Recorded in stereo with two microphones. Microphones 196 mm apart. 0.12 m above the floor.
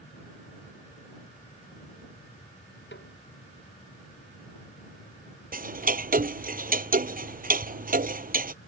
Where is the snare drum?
65° left (ahead or behind).